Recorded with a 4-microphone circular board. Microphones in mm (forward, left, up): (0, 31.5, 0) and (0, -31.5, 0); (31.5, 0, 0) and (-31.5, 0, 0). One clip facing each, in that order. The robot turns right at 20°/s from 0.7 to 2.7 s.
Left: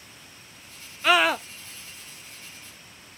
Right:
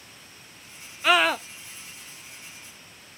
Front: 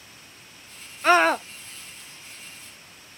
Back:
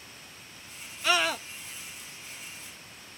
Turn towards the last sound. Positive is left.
turn(degrees=30)